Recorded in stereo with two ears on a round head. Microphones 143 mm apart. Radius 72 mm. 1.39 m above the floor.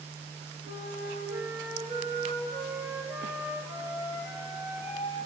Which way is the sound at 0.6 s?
20° right (ahead or behind).